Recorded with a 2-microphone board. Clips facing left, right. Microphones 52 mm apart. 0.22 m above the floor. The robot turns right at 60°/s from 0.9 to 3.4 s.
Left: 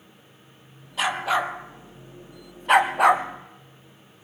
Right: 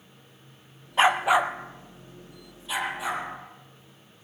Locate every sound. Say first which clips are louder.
1.0 s a dog barking: right 4 dB; 35° right (ahead or behind), 1.6 m; by 4.2 s 70° left (ahead or behind), 1.6 m